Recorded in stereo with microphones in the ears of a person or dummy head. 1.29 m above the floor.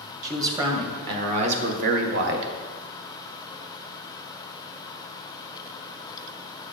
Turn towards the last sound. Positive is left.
turn(degrees=-65)  # may be behind; listen again after turning